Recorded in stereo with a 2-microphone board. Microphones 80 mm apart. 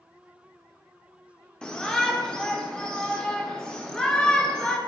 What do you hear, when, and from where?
1.6 s a shout: 10° left (ahead or behind), 0.7 m